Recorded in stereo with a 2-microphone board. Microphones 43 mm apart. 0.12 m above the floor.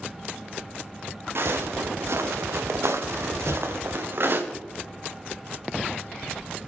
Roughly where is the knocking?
Left.